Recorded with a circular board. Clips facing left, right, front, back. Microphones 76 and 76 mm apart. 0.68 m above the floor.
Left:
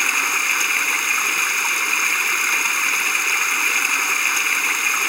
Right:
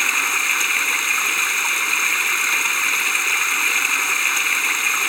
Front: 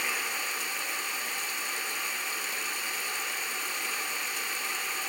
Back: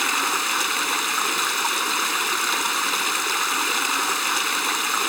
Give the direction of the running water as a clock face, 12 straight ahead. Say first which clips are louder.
Even, back 10 dB; 6 o'clock.